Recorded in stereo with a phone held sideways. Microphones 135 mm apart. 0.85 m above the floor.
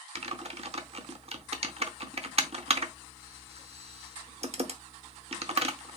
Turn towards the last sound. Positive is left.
turn(degrees=-50)  # may be behind; listen again after turning